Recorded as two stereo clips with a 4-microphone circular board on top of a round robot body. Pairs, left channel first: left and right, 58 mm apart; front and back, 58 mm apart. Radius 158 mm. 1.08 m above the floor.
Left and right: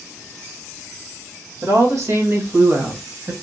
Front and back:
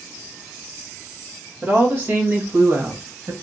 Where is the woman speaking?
120° right, 1.9 m; by 3.3 s 145° right, 1.4 m.